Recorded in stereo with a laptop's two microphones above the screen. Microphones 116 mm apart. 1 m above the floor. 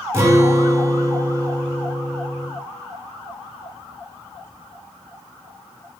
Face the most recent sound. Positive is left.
turn(degrees=-20)  # may be behind; listen again after turning